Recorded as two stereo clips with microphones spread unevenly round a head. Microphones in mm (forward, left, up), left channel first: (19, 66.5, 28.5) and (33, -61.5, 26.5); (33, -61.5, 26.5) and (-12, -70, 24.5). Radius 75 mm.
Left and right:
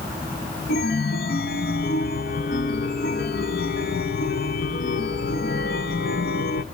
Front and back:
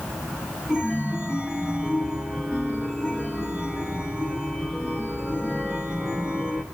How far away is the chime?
About 0.8 m.